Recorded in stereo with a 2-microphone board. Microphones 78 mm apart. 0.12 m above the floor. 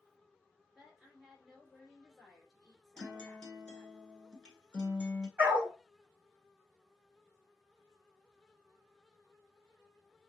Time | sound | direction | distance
0.8 | a woman speaking | 5° right (ahead or behind) | 2 m
3.0 | a guitar | 15° left (ahead or behind) | 1.2 m
5.4 | a dog barking | 20° right (ahead or behind) | 1.8 m